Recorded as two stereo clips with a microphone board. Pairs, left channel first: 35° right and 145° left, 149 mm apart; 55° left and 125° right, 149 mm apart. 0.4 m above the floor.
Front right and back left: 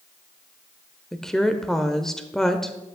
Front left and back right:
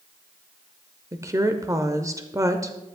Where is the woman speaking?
115° right, 0.8 m.